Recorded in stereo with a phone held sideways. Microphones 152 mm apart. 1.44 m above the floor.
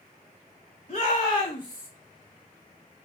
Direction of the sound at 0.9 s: 50° left (ahead or behind).